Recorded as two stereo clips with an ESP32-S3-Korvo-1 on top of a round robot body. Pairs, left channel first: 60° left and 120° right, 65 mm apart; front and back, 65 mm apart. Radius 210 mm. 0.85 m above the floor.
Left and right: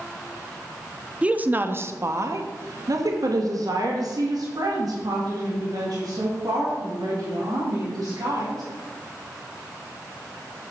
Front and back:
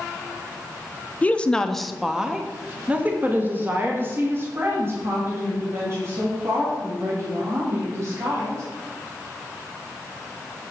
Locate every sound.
1.2 s a woman speaking: 55° right, 1.0 m; by 8.6 s 140° right, 4.5 m